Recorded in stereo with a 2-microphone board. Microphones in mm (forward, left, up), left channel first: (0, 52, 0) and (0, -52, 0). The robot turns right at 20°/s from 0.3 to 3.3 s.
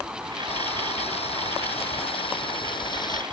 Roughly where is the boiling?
Left.